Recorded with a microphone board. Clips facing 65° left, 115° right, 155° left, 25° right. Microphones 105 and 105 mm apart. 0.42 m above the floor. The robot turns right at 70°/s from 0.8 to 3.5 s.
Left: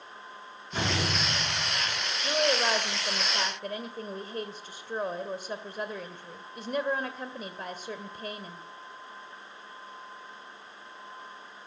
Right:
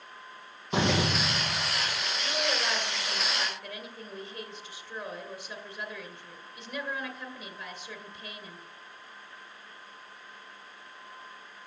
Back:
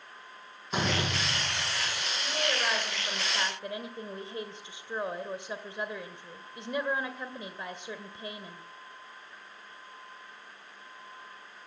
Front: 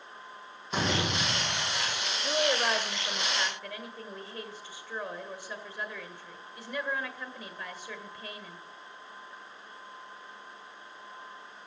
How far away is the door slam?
About 9 m.